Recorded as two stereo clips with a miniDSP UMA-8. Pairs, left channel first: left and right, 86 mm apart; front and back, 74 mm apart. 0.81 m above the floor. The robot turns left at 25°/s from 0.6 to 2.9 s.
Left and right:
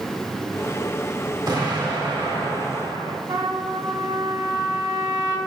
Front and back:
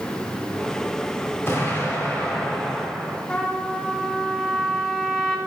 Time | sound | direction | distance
1.5 | an explosion | 55° right | 2 m
3.3 | a trumpet | 75° right | 1.4 m